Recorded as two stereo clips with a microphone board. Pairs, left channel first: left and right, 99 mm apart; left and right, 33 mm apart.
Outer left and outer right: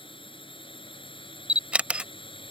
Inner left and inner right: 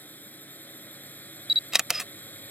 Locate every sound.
0.0 s a drone: 65° left (ahead or behind)
1.5 s a camera shutter: 15° right (ahead or behind)